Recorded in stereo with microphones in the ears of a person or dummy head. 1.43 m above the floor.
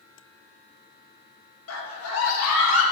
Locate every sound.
1.7 s a scream: 80° left, 2.5 m